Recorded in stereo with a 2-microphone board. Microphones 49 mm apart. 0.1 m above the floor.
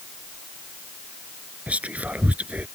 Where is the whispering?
30° right (ahead or behind).